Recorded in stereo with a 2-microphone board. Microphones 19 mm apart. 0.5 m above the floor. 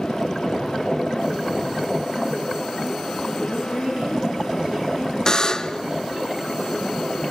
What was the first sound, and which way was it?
A woman speaking, 60° right (ahead or behind).